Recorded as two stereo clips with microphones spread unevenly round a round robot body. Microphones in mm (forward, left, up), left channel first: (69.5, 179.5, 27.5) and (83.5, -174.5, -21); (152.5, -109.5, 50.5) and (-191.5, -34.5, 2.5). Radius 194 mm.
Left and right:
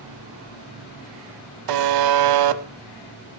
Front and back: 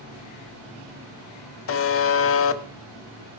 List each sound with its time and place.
1.7 s a buzzer: 60° right, 1.0 m